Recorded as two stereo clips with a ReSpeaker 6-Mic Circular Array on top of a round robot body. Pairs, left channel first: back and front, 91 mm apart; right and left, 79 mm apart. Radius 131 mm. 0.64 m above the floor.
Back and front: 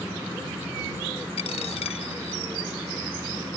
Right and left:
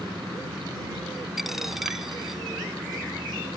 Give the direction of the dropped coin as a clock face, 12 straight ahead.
6 o'clock.